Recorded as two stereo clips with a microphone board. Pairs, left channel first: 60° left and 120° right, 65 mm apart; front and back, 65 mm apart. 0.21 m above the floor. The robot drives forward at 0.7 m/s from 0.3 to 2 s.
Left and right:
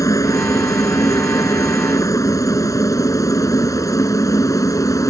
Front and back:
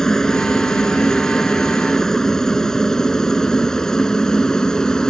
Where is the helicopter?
80° left.